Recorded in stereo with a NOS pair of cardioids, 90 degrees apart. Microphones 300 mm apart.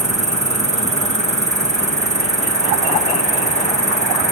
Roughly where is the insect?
Ahead right.